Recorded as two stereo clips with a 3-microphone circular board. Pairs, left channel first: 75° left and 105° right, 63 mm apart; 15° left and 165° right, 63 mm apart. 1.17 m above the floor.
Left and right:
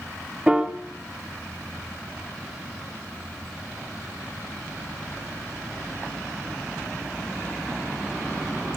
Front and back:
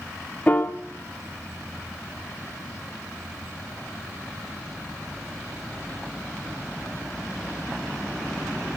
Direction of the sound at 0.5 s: 40° right.